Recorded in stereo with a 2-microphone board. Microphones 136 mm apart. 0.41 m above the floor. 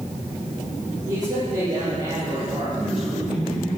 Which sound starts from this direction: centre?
A man speaking, at 2.8 s.